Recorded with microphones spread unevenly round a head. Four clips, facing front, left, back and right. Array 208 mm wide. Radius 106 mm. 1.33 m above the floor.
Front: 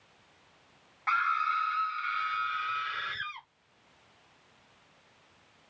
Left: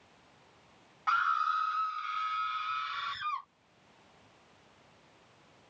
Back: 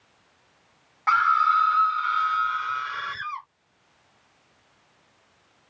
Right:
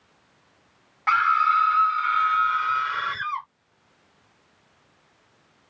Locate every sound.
1.1 s a scream: 125° right; by 3.5 s 100° right